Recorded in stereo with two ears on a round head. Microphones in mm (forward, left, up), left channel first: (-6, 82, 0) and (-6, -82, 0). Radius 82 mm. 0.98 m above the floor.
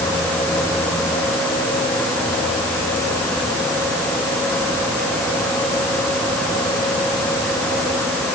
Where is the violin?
No violin in this recording.